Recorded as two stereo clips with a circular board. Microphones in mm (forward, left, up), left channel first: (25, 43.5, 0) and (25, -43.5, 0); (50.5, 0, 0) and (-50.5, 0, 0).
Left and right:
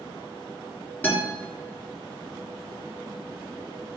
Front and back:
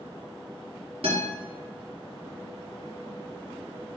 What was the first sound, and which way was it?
A guitar, 155° left.